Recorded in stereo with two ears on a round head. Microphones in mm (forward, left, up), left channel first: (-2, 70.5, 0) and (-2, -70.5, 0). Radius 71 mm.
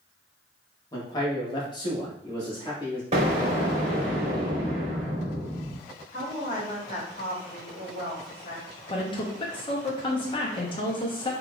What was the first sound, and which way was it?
A man speaking, 25° left (ahead or behind).